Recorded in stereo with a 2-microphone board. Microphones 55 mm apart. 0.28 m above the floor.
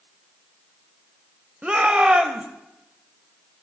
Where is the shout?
20° right (ahead or behind), 0.9 m.